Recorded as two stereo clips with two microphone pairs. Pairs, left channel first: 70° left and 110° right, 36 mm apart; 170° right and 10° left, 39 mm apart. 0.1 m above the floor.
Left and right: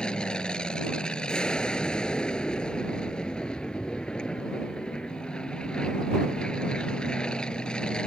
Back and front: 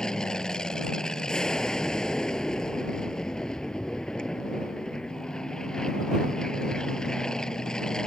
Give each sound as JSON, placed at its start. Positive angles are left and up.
{"t": 0.0, "sound": "an aircraft", "azimuth_deg": 125}